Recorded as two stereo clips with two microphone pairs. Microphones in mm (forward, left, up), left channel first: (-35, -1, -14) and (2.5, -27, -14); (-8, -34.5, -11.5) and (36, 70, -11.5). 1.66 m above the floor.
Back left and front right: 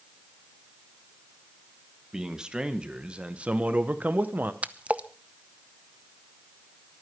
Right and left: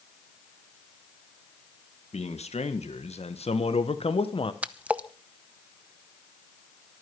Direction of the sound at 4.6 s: Straight ahead.